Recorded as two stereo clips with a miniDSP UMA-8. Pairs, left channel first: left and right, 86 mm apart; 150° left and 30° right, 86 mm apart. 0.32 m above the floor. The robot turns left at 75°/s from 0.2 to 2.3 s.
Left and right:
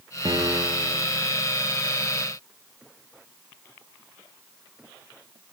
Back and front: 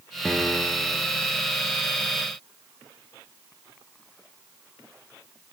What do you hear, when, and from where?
0.2 s a piano: 120° right, 4 m; by 1.1 s straight behind, 4 m